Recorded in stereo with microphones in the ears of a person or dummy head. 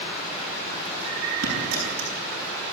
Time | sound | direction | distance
1.4 | a dropped coin | 55° right (ahead or behind) | 9.5 m